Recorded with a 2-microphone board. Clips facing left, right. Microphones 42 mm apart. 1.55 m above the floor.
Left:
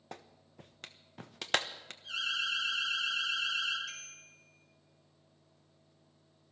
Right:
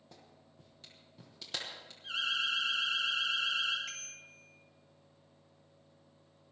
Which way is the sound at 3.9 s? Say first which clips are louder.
Right 1 dB; 50° right (ahead or behind).